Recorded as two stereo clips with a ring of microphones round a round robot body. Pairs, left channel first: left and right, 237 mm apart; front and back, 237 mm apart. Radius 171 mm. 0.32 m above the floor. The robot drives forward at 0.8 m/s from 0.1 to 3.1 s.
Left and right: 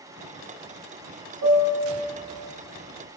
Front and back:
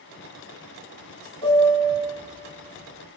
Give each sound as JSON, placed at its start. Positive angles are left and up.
{"t": 1.4, "sound": "a piano", "azimuth_deg": -75, "distance_m": 7.5}